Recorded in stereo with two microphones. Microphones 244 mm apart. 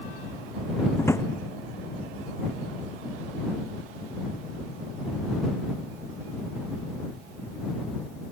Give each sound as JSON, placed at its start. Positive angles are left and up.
{"t": 1.0, "sound": "a drawer", "side_deg": 10}